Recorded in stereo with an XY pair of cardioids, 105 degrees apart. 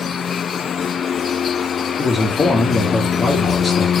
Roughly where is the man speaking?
Ahead left.